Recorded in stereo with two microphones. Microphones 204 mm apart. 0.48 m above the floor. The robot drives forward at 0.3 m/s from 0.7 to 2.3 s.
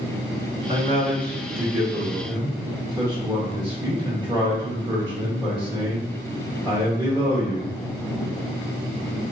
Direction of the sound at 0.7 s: 25° right (ahead or behind).